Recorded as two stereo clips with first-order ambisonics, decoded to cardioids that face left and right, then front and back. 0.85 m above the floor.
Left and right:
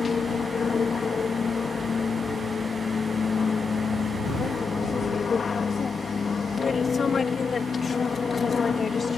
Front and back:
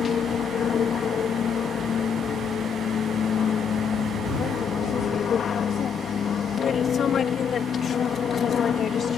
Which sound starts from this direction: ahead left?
An aircraft, at 0.0 s.